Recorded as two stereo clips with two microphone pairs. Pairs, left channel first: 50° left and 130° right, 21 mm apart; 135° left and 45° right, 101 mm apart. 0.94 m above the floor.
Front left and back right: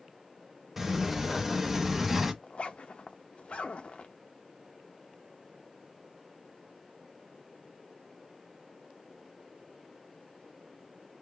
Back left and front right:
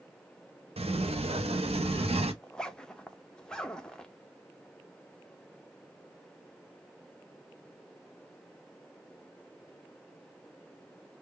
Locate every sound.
0.8 s a sliding door: 55° right, 0.7 m
2.4 s a zipper: 55° left, 0.6 m